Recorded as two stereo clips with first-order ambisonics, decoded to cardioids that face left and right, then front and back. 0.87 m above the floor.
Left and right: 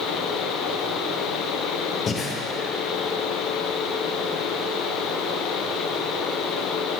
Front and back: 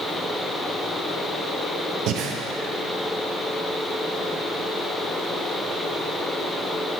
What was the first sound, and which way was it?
Breathing, 150° left.